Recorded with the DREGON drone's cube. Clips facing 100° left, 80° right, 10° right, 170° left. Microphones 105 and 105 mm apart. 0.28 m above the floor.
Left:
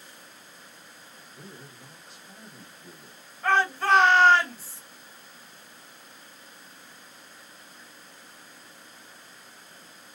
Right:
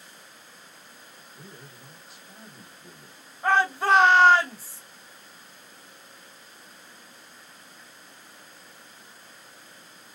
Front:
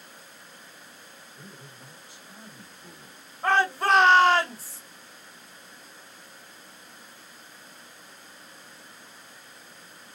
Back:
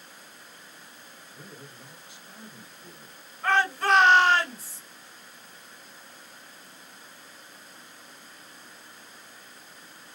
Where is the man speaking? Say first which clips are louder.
Left 1 dB, back 2 dB; straight behind, 1.5 m; by 3.2 s 45° right, 1.2 m.